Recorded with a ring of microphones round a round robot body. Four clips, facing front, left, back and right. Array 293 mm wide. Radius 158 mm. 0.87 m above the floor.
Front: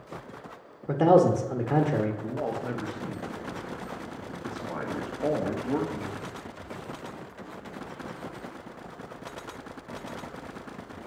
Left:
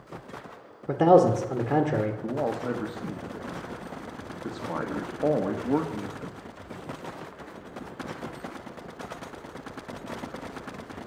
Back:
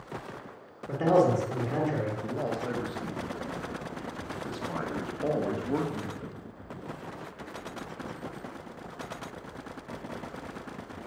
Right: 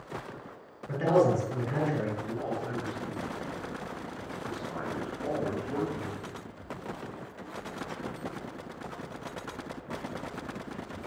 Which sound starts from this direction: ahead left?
A man speaking, at 0.9 s.